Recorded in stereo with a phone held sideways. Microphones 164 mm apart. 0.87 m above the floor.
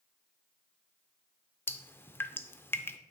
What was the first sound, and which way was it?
Dripping, 15° left (ahead or behind).